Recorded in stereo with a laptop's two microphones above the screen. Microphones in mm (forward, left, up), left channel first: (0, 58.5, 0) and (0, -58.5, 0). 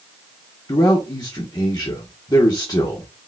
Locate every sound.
0.7 s a man speaking: 40° left (ahead or behind), 1.0 m